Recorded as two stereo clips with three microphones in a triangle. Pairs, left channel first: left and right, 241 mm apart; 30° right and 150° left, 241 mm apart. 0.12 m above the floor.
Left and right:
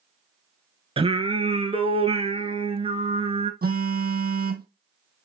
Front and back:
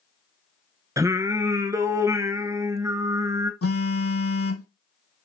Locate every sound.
1.0 s singing: 140° right, 0.9 m
3.6 s a phone buzzing: 40° right, 1.1 m